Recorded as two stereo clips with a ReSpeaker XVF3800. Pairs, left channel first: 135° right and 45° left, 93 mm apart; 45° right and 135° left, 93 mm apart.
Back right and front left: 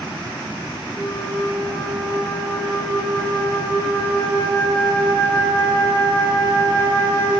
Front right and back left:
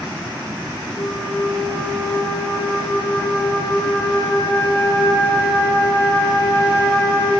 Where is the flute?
85° right, 2 m.